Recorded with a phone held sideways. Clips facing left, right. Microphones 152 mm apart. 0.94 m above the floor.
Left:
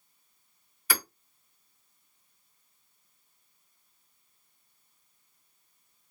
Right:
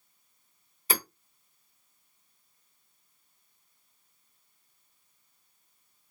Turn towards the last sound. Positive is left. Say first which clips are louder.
# right 2 dB
turn(degrees=-25)  # may be behind; listen again after turning